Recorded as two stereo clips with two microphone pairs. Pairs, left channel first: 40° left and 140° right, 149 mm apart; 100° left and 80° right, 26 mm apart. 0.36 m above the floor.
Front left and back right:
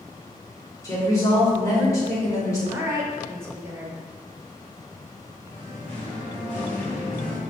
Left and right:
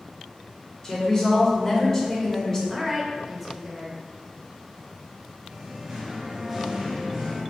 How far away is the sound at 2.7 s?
About 0.8 m.